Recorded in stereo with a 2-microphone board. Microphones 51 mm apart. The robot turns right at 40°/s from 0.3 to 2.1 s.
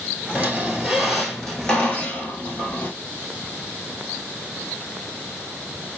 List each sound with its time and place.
0.3 s a squeak: 35° right, 1.0 m; by 2.9 s 35° left, 1.0 m